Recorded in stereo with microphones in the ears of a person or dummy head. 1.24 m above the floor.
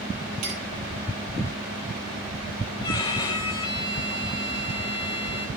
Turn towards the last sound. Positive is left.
turn(degrees=20)  # may be behind; listen again after turning